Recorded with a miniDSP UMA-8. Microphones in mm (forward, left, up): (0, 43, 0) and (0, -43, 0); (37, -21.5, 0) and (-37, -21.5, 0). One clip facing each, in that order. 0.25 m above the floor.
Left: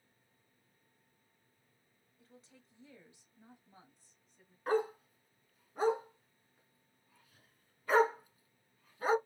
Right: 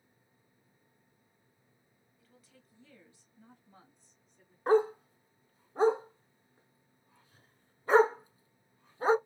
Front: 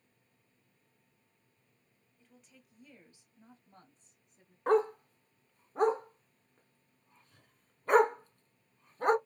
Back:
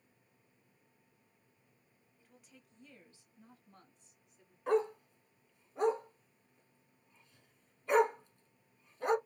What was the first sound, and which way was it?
A woman speaking, 110° left.